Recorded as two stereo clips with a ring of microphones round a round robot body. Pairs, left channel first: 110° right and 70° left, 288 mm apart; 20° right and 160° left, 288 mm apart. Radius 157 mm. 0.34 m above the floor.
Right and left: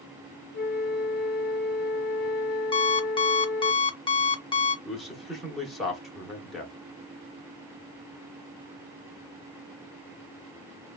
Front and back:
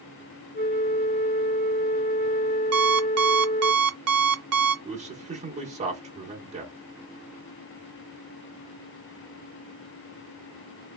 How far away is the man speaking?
About 0.8 m.